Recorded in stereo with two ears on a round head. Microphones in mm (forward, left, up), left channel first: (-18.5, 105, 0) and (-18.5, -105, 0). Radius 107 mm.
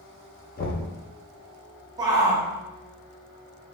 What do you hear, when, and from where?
0.6 s knocking: 40° left (ahead or behind), 0.9 m
2.0 s a shout: 15° right (ahead or behind), 0.8 m